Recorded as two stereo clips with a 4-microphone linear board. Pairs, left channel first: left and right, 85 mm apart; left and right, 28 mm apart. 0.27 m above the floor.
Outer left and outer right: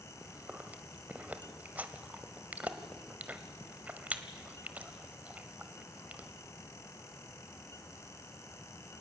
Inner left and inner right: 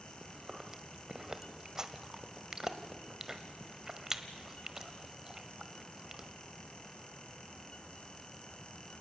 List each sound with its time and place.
0.2 s chewing: 20° right (ahead or behind), 1.2 m